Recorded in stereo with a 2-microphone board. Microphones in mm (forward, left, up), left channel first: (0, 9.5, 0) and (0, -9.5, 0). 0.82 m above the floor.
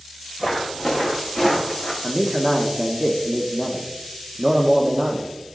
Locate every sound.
0.4 s footsteps: 20° right (ahead or behind), 4 m; by 1.9 s centre (ahead or behind), 3.5 m
2.0 s a man speaking: 40° right (ahead or behind), 1.2 m